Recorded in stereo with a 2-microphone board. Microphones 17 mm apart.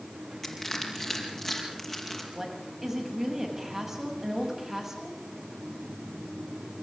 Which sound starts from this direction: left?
Crushing, at 0.4 s.